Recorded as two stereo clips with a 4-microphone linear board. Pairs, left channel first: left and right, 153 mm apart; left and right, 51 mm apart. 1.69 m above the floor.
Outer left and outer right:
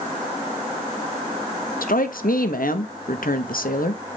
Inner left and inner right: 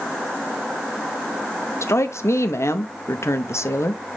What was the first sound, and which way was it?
A woman speaking, 80° left.